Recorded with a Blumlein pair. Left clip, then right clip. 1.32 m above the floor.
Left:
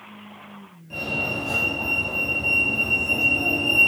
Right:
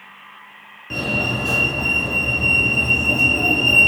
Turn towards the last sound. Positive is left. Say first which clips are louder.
# right 4 dB
turn(degrees=-60)